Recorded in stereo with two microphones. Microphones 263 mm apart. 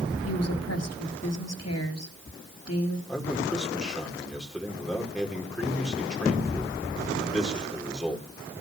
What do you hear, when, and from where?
0.2 s a woman speaking: 65° left (ahead or behind), 3.5 m
3.1 s a man speaking: centre (ahead or behind), 5 m